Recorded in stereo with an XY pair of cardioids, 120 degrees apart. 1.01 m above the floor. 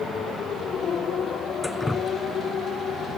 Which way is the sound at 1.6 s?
10° left.